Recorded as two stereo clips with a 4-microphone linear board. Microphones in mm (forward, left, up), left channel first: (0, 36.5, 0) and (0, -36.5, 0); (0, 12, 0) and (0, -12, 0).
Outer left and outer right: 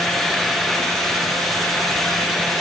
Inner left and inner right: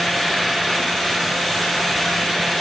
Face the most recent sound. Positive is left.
No sound to turn to.